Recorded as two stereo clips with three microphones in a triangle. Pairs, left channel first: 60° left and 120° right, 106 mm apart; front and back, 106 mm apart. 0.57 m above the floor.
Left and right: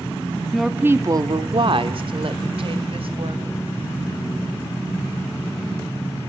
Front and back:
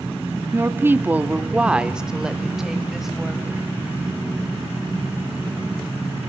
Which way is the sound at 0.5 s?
140° left.